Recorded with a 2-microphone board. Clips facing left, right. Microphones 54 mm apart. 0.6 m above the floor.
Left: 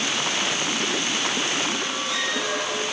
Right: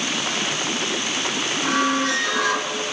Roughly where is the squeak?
Right.